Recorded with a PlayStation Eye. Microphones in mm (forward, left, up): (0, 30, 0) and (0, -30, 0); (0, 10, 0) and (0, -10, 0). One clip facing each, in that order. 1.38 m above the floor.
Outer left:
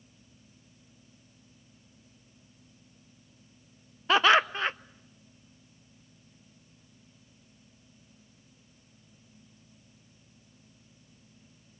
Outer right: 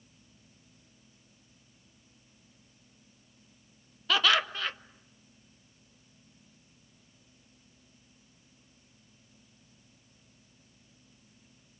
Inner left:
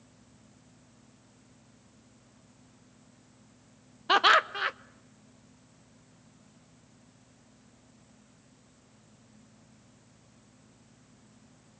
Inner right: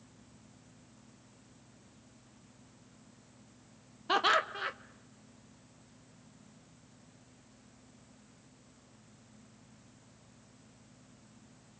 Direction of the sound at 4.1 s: 30° left (ahead or behind).